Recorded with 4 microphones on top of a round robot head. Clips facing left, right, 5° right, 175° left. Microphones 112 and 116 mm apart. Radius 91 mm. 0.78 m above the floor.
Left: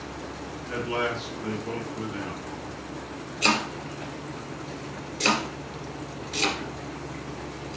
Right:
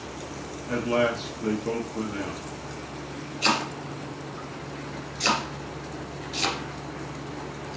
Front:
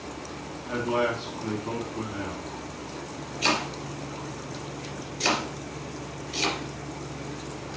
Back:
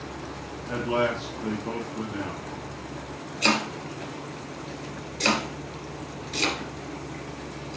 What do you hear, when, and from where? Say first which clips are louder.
0.7 s a man speaking: right 5 dB, back 1 dB; 120° right, 1.5 m
3.4 s chopping: even, back 2 dB; 135° left, 3 m